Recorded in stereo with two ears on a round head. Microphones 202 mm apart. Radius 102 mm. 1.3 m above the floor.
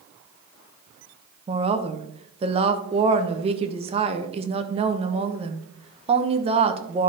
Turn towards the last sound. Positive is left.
turn(degrees=-30)  # may be behind; listen again after turning